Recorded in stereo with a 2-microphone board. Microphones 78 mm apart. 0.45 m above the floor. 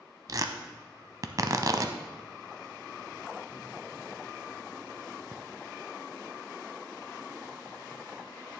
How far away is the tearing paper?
About 0.7 m.